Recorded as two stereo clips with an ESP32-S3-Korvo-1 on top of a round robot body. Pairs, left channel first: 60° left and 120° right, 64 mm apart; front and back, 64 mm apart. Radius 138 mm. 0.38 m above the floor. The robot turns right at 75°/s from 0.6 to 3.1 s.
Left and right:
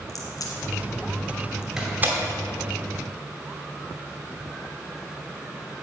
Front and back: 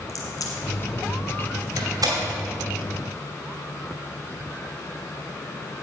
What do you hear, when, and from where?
0.1 s a crack: 30° left, 1.4 m; by 1.7 s 110° left, 1.4 m
1.8 s a door slam: 155° left, 2.5 m; by 2.2 s 170° right, 2.5 m